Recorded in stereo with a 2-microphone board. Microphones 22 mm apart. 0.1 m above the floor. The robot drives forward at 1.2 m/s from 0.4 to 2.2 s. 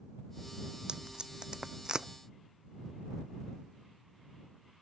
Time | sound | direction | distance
0.9 | tape being pulled | 40° right (ahead or behind) | ?